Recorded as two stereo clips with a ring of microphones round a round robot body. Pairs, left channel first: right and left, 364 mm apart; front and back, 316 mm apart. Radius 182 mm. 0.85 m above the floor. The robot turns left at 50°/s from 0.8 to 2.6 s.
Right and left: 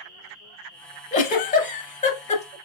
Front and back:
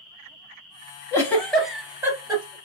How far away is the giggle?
About 0.7 m.